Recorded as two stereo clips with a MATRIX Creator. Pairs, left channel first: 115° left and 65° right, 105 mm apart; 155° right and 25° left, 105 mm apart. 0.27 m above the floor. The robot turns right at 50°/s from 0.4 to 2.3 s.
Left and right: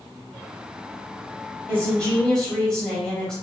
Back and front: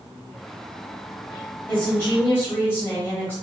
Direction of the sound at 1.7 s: 155° left.